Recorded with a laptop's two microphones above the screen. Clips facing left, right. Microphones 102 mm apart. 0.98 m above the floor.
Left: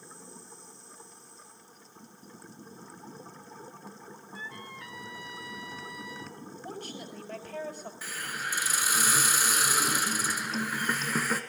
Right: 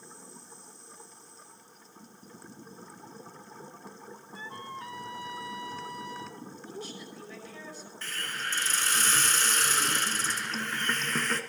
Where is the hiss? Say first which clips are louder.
Right 1 dB; 10° left (ahead or behind), 2 m.